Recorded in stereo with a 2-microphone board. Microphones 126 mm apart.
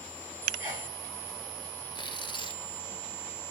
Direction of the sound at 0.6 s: 20° right (ahead or behind).